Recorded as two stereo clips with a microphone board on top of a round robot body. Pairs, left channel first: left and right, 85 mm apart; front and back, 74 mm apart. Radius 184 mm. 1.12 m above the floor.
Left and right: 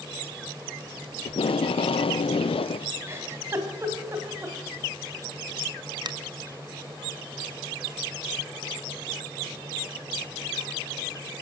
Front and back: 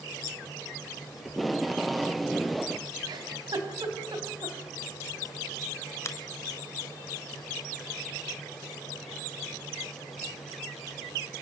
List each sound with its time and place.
1.2 s tape being pulled: 90° left, 0.5 m
3.1 s a giggle: 155° right, 3 m
6.0 s a finger snap: 50° right, 1.2 m